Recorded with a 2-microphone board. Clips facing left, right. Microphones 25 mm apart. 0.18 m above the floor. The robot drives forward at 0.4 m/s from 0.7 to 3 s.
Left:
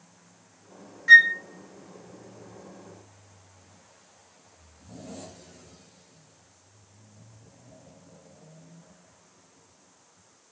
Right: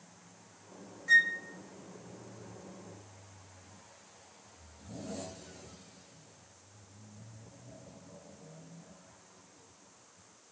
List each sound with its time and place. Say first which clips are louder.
1.1 s a flute: left 11 dB; 50° left (ahead or behind), 0.5 m; by 1.4 s 40° left (ahead or behind), 0.6 m